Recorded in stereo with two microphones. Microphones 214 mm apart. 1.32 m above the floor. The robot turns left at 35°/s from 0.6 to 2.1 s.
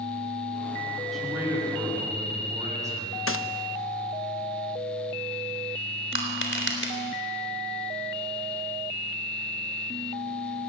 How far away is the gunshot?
About 1.1 m.